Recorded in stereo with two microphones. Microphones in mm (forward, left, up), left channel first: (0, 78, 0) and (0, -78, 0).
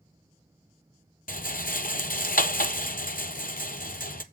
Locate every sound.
1.3 s a rattle: 65° left (ahead or behind), 0.8 m